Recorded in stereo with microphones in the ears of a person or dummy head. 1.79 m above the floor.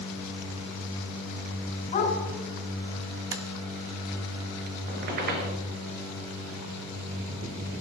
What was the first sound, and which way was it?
A dog barking, 35° left (ahead or behind).